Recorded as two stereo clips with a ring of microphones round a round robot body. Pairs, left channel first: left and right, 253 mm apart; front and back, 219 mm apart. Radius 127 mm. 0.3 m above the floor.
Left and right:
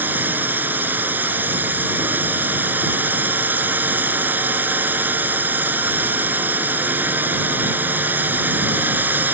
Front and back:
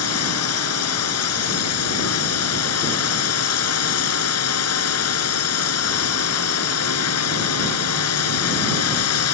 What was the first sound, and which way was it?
A drone, 10° right.